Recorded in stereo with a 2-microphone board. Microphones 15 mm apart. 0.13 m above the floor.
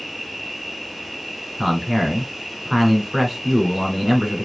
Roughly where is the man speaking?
Centre.